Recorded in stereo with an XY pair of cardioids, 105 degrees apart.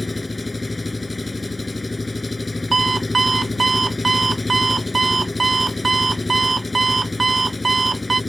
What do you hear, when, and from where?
0.0 s an engine running: 20° left
2.7 s an alarm clock: 20° right